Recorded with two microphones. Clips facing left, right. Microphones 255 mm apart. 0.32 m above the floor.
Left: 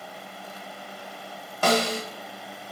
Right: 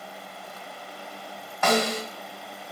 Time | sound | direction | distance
1.6 | a snare drum | 35° left (ahead or behind) | 1.2 m